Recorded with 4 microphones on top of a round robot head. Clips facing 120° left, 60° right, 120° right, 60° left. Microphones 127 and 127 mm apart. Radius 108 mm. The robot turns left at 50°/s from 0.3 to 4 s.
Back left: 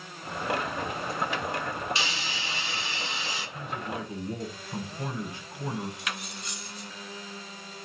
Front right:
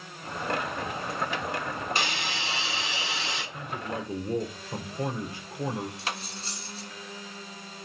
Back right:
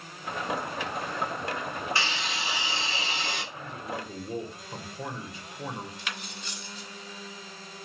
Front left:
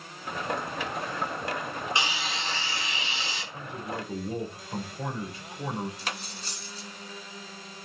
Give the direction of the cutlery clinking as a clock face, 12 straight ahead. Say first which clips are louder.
Front right 2 dB, front left 2 dB; 12 o'clock.